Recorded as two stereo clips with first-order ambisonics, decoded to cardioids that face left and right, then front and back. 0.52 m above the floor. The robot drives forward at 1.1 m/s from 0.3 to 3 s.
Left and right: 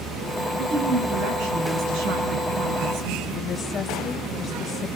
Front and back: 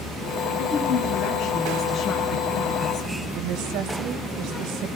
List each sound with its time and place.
0.6 s a woman speaking: 45° right, 7.5 m; by 3.2 s 65° right, 6 m
3.4 s a woman speaking: 150° left, 2.5 m